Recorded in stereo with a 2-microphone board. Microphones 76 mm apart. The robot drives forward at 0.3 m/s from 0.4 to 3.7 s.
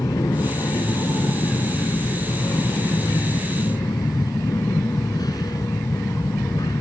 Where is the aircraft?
60° left (ahead or behind).